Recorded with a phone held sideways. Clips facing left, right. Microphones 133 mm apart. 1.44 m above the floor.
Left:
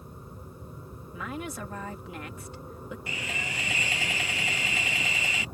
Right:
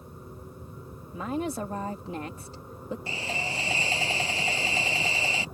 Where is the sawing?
30° right (ahead or behind).